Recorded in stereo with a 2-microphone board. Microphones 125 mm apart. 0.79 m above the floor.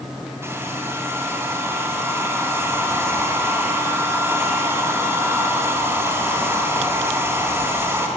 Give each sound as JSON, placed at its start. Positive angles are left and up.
{"t": 0.4, "sound": "a hair dryer", "side_deg": -20, "distance_m": 4.0}